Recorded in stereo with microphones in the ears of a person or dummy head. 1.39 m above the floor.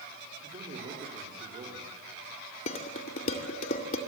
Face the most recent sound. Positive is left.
turn(degrees=45)  # may be behind; listen again after turning